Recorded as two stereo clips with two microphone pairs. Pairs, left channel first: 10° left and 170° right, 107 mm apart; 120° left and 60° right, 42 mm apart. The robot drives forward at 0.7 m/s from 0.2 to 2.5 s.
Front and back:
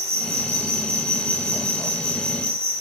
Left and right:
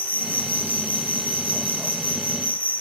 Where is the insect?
170° left, 8.5 m; by 2.8 s 175° left, 10 m.